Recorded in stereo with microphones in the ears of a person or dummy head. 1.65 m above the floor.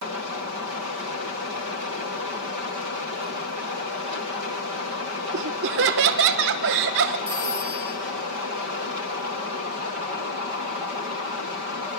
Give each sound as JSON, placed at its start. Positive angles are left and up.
{"t": 5.3, "sound": "laughter", "side_deg": -60, "distance_m": 1.0}
{"t": 7.3, "sound": "a phone ringing", "side_deg": 10, "distance_m": 7.5}